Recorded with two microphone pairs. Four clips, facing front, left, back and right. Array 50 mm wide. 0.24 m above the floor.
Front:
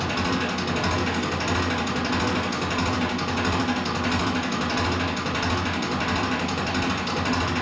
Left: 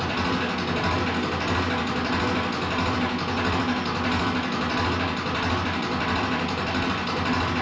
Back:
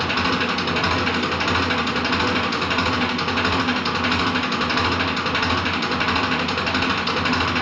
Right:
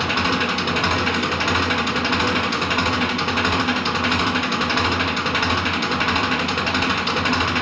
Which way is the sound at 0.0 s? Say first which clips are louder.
Right 5 dB, back 4 dB; 125° right.